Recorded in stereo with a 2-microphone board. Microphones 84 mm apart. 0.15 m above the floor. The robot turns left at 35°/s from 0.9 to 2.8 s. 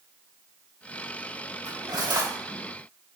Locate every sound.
1.6 s cutlery clinking: 40° right (ahead or behind), 3.5 m; by 2.3 s 60° right (ahead or behind), 3.5 m